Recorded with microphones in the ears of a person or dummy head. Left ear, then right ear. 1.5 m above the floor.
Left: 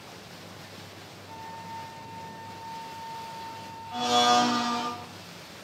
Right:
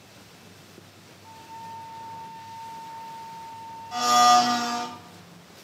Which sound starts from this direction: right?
A blender, at 3.9 s.